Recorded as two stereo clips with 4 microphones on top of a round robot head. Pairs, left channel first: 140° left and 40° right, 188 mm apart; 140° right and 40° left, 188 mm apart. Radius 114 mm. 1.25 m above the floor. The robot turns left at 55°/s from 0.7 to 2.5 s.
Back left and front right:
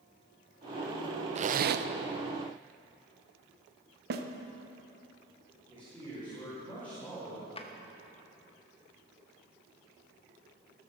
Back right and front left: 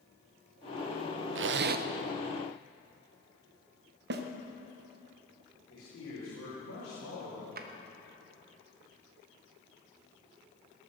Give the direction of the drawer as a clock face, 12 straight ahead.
9 o'clock.